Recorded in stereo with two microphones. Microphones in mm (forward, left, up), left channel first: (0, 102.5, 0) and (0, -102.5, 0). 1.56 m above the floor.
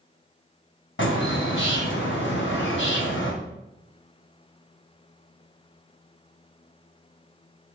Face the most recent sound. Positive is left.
turn(degrees=70)  # may be behind; listen again after turning